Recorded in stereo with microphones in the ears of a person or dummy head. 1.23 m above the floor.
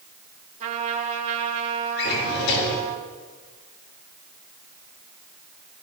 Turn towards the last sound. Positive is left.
turn(degrees=65)  # may be behind; listen again after turning